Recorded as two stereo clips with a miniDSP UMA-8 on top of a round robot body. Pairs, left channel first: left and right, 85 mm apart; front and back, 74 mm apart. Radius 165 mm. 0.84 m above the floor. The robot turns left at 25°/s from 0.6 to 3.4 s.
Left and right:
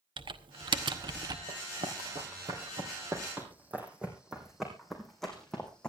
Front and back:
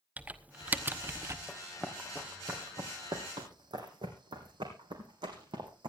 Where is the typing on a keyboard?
110° right, 1.1 m; by 1.4 s 130° right, 1.1 m.